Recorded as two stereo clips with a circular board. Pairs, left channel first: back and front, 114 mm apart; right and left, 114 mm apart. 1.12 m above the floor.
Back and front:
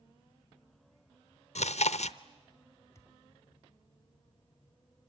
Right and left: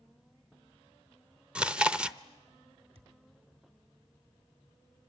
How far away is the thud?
About 1.9 m.